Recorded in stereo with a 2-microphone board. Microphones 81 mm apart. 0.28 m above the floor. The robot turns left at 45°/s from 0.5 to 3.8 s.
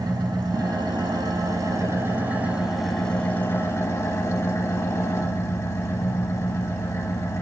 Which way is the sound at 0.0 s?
75° right.